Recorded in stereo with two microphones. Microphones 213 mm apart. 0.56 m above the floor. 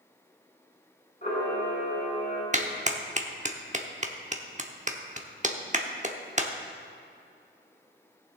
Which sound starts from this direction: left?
A camera shutter, at 1.2 s.